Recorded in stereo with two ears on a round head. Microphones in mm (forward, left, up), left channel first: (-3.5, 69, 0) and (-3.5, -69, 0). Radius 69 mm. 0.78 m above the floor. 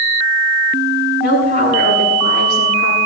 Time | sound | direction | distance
1.2 | a woman speaking | 70° left (ahead or behind) | 7.5 m